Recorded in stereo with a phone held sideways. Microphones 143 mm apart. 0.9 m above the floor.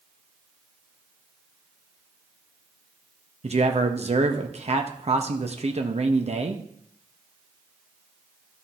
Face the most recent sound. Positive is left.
turn(degrees=-50)  # may be behind; listen again after turning